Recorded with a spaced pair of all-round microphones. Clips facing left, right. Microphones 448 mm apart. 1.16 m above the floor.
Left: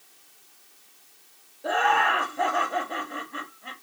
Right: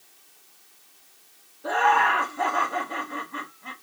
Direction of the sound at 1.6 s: 20° right (ahead or behind).